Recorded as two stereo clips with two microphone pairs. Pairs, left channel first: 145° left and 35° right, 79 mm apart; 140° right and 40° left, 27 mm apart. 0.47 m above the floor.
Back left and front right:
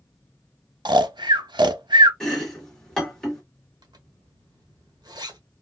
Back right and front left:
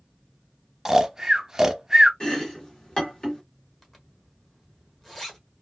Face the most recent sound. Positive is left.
turn(degrees=-60)